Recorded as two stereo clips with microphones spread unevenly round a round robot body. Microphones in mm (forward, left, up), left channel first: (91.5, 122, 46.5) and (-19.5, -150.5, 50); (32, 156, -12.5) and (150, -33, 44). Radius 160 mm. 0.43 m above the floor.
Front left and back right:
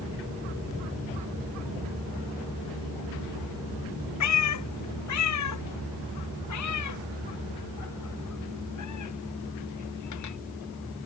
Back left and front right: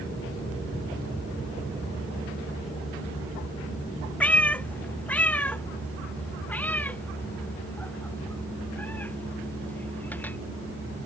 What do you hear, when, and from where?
4.2 s a cat meowing: 35° left; by 10.4 s 40° left